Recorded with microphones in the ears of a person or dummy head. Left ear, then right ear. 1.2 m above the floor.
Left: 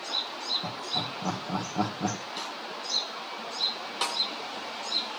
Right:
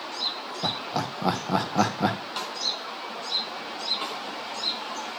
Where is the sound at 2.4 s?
80° right, 5 m.